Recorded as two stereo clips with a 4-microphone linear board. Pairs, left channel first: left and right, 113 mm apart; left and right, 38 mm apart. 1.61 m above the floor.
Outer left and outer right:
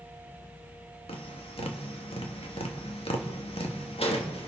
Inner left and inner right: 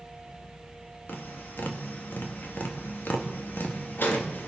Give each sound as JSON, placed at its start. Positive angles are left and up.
{"t": 1.1, "sound": "tapping", "side_deg": 55, "distance_m": 2.0}